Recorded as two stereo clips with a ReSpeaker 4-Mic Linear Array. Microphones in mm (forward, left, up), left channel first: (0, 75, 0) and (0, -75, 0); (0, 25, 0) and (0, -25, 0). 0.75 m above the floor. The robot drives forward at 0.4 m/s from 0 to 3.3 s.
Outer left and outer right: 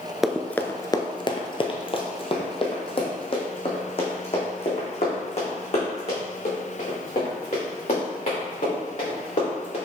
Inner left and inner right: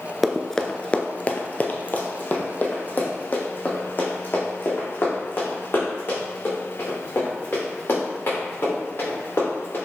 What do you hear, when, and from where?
0.2 s running footsteps: centre (ahead or behind), 0.7 m; by 9.8 s 50° left (ahead or behind), 6.5 m